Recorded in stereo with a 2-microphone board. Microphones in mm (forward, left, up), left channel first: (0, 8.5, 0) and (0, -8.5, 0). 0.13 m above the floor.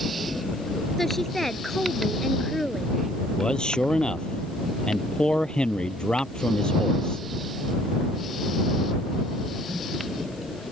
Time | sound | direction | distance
1.0 | a woman speaking | 20° left (ahead or behind) | ?
3.2 | a man speaking | 65° left (ahead or behind) | ?